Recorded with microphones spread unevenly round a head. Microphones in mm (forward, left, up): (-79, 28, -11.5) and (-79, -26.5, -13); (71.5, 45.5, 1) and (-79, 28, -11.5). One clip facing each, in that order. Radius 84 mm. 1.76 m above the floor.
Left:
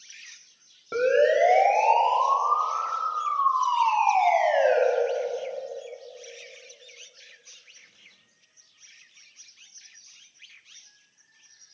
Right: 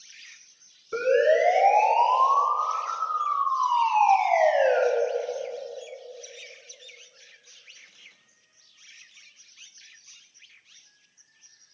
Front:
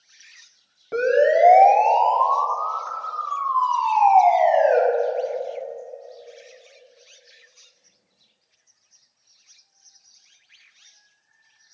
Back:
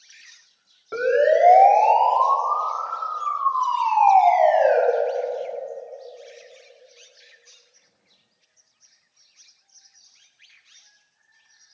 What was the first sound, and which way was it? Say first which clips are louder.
A siren: even, even; 70° left.